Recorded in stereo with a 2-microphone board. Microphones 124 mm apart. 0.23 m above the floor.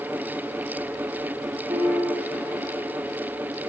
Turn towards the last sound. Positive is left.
turn(degrees=-30)  # may be behind; listen again after turning